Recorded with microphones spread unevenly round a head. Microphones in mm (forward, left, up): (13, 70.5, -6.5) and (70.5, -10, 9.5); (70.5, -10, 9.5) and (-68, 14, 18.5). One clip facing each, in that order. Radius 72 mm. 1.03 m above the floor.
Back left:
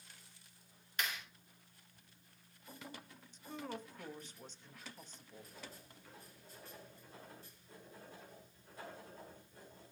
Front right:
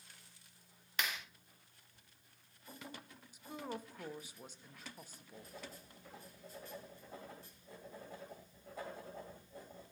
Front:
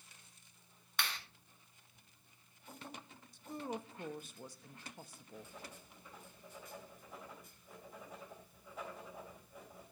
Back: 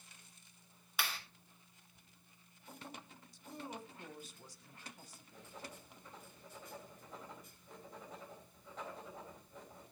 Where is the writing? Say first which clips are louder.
Front right 2 dB, even; 95° right, 3.5 m.